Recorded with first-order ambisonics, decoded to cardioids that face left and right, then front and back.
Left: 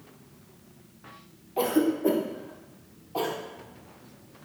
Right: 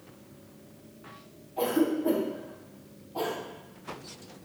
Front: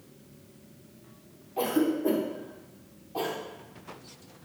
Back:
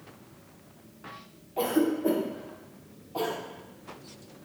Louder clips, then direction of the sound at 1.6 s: Left 2 dB, back 1 dB; 100° left.